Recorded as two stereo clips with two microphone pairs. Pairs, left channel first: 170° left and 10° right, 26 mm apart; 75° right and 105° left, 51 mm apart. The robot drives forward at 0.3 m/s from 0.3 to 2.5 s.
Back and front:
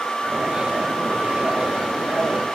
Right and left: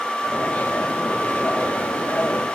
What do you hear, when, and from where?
Only background noise.